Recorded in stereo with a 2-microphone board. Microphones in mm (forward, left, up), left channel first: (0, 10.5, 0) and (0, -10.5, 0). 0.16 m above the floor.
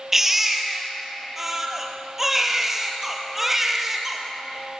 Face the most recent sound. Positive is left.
turn(degrees=-15)  # may be behind; listen again after turning